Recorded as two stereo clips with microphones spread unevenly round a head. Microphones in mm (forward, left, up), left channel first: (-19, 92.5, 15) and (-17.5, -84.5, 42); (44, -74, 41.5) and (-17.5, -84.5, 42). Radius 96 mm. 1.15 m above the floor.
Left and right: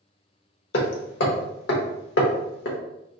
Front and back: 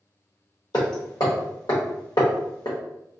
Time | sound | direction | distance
0.7 | hammering | 60° left | 0.8 m